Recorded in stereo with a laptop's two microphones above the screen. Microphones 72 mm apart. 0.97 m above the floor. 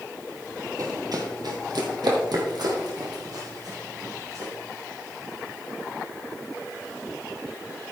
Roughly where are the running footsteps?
Right.